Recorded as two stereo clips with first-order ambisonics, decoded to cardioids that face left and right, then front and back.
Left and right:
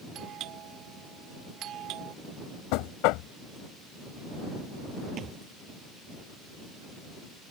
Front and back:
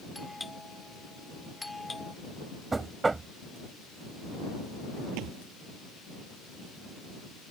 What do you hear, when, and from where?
0.1 s a doorbell: 80° right
2.7 s knocking: 100° left
5.2 s a thud: 150° right